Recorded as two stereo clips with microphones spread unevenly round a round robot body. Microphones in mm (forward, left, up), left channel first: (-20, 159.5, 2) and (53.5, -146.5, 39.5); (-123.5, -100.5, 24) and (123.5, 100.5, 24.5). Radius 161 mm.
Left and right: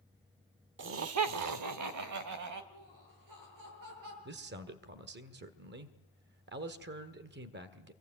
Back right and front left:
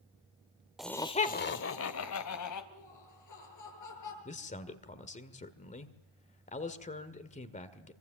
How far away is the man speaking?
About 1.6 m.